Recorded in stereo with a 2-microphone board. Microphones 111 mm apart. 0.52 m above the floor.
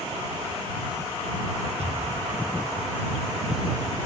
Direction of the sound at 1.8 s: 65° right (ahead or behind).